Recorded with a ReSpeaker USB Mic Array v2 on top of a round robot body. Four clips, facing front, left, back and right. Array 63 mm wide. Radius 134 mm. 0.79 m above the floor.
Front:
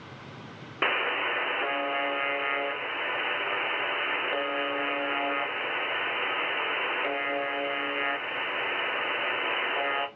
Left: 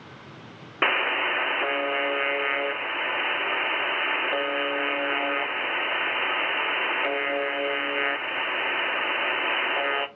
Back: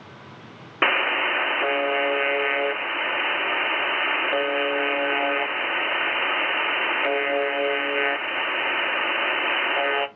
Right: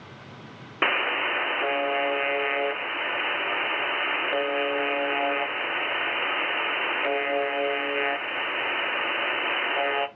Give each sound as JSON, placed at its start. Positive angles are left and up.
{"t": 0.8, "sound": "a buzzer", "azimuth_deg": 175, "distance_m": 0.8}